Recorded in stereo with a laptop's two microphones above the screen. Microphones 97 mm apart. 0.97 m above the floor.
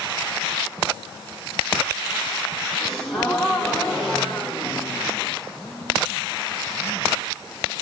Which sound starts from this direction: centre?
A gasp, at 2.8 s.